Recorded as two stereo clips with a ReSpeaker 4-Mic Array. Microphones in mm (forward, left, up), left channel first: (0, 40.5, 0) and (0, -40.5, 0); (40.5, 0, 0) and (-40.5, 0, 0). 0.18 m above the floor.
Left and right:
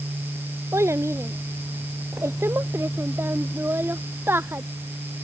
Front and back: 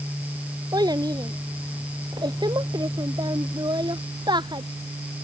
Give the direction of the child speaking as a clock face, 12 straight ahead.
5 o'clock.